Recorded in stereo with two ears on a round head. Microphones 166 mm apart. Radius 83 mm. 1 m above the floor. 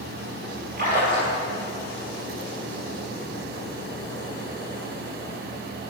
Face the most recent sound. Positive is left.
turn(degrees=-50)  # may be behind; listen again after turning